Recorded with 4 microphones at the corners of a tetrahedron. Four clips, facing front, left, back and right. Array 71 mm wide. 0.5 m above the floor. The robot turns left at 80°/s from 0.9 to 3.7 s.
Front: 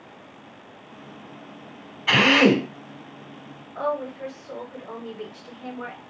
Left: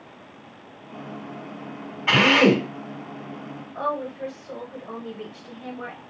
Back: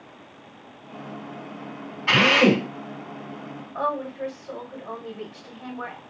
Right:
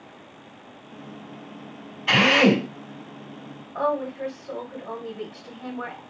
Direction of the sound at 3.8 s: 125° right.